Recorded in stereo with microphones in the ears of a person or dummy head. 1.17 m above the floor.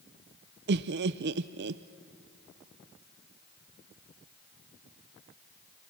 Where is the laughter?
50° right (ahead or behind), 0.5 m.